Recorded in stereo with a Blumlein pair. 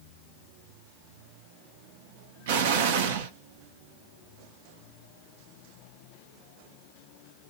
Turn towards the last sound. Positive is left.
turn(degrees=-55)